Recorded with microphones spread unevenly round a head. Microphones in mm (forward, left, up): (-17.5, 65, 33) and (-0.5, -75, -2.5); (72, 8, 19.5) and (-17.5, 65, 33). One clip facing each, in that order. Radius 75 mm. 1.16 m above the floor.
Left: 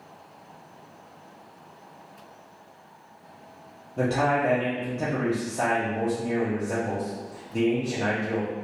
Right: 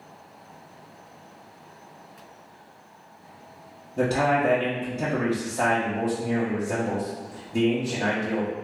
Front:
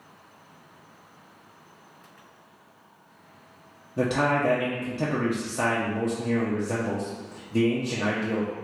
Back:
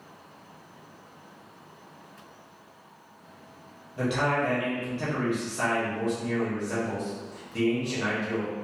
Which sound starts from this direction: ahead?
A man speaking, at 4.0 s.